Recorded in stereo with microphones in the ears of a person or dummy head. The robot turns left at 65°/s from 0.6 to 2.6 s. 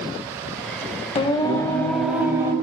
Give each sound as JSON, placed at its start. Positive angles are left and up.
{"t": 1.1, "sound": "singing", "azimuth_deg": 50, "distance_m": 1.5}